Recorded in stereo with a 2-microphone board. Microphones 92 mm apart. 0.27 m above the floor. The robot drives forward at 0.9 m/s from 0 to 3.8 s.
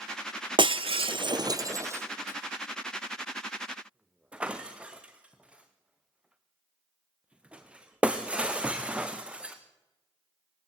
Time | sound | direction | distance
0.6 | breaking glass | 65° right (ahead or behind) | 0.7 m